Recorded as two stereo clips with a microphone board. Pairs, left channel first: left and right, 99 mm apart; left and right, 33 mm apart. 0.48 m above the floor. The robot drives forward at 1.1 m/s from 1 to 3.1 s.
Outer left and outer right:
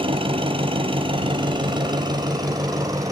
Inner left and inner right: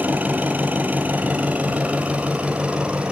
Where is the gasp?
No gasp in this recording.